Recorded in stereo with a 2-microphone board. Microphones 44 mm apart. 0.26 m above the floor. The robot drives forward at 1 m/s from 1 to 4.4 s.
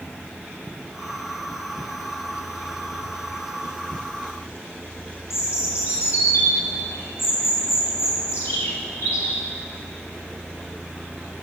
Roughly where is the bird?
Left.